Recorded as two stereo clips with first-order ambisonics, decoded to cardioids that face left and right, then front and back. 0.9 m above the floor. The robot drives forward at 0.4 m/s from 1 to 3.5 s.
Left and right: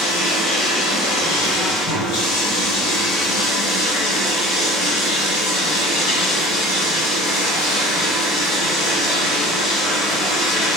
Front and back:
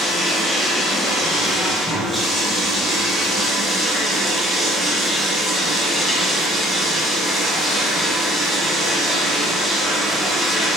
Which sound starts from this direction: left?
Running water, at 0.0 s.